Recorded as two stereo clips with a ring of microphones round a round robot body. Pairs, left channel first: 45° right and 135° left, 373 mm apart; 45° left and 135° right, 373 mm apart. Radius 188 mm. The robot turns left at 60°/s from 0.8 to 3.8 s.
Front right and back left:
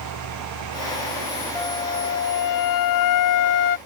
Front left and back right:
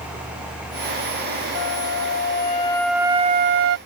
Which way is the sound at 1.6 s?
35° left.